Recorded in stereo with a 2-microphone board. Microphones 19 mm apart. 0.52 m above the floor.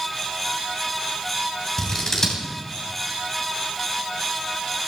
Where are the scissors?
25° left (ahead or behind), 3 m.